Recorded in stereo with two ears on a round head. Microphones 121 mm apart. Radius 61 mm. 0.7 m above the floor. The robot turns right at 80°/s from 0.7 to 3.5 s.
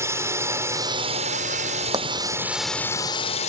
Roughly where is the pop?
Right.